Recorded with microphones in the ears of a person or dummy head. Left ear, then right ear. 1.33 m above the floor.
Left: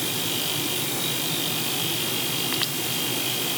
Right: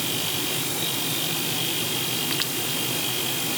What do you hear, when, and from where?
Only background noise.